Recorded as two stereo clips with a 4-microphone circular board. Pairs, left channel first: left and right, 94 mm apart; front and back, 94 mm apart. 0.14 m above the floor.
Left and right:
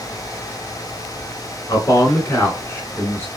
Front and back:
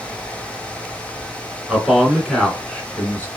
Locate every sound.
1.7 s a man speaking: 100° left, 1.7 m; by 3.3 s 35° left, 1.5 m